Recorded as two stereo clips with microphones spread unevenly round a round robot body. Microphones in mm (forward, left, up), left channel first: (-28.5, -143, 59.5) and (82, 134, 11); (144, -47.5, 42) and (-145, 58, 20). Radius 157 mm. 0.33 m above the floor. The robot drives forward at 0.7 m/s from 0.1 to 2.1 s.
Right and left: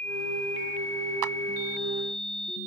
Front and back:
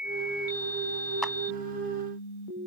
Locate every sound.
1.2 s a clap: 70° left; by 1.4 s 75° left